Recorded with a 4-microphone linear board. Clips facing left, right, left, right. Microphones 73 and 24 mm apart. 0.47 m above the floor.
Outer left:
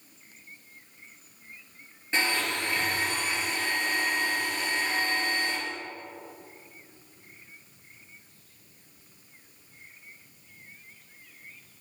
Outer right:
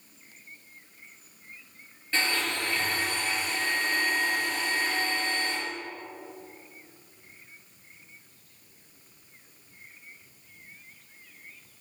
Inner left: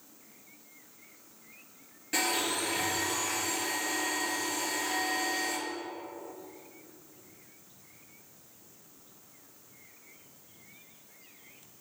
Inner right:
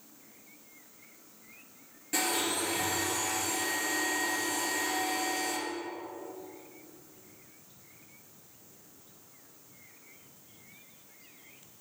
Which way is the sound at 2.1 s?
20° left (ahead or behind).